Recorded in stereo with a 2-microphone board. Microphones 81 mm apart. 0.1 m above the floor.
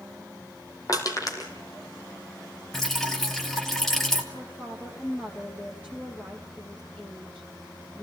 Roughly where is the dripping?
Centre.